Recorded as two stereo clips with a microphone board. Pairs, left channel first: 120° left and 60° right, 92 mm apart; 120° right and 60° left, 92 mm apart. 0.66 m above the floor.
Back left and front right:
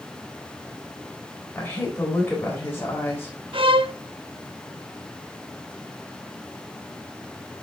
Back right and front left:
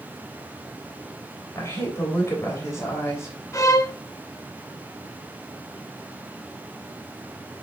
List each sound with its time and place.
1.6 s a woman speaking: 175° right, 3 m
3.5 s a violin: 70° right, 0.6 m